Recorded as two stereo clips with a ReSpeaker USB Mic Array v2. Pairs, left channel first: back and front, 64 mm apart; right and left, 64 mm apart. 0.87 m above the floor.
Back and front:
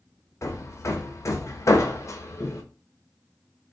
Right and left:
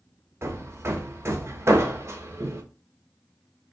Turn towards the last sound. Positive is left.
turn(degrees=140)